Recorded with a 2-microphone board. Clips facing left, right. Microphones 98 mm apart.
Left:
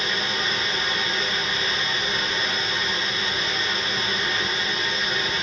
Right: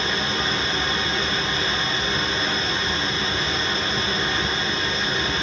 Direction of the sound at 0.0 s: 30° right (ahead or behind).